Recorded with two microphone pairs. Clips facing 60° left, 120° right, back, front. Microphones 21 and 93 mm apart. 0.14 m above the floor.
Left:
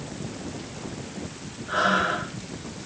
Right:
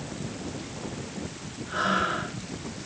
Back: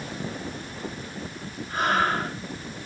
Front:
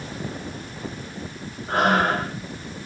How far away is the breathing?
About 7 m.